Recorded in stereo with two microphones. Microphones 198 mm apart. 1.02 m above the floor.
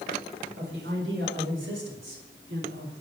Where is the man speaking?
80° right, 5 m; by 3.0 s 70° right (ahead or behind), 3 m.